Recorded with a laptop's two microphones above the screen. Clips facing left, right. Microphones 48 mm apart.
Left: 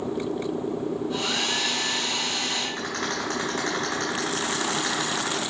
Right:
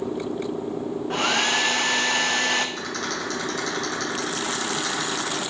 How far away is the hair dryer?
About 0.8 m.